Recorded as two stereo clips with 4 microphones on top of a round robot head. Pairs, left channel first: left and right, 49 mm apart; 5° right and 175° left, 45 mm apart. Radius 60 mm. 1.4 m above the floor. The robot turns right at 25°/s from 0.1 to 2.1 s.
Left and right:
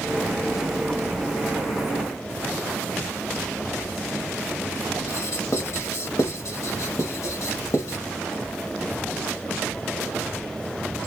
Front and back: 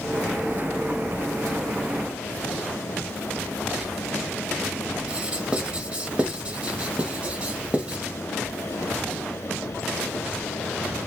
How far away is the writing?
About 0.9 m.